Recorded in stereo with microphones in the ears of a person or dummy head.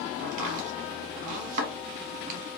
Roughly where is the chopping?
Right.